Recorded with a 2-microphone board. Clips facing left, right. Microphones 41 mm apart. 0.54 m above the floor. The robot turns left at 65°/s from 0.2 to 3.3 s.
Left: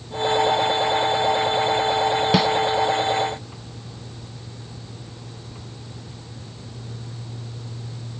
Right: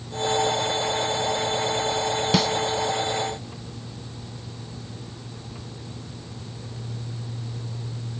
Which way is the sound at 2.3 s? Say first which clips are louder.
Left 2 dB; 10° left (ahead or behind).